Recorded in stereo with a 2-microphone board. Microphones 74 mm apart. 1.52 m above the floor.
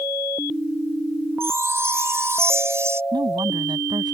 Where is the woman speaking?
85° right.